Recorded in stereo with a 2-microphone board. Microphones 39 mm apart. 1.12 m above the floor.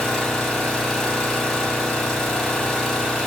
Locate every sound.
0.0 s an engine running: 10° left (ahead or behind), 2 m